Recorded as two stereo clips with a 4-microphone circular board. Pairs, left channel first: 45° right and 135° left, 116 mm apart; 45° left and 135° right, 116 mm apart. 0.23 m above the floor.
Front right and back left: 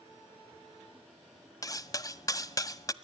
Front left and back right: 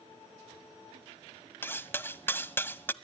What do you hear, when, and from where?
1.6 s cutlery clinking: 15° right, 0.6 m